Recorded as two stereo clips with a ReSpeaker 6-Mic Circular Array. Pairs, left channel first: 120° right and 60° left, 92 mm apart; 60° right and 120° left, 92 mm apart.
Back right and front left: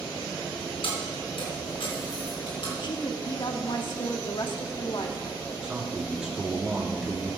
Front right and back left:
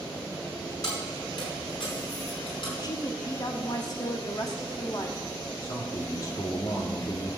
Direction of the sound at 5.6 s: 20° right.